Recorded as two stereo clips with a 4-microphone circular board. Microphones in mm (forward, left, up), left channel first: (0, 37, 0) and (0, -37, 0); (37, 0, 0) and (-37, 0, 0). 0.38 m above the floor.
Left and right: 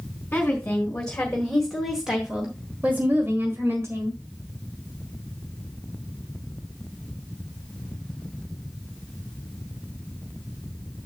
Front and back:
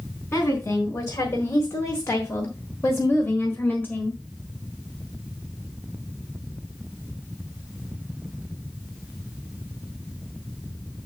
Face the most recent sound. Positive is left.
turn(degrees=-60)